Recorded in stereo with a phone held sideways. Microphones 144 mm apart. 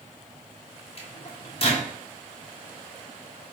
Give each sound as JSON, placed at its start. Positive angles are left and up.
{"t": 1.0, "sound": "a microwave", "side_deg": 40, "distance_m": 1.1}